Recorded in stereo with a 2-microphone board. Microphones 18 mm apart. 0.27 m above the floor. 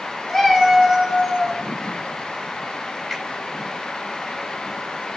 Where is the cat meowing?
15° left (ahead or behind), 1.1 m; by 1.6 s 30° right (ahead or behind), 0.9 m.